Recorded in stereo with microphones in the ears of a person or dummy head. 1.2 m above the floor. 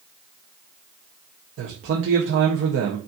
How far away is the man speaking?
About 0.9 m.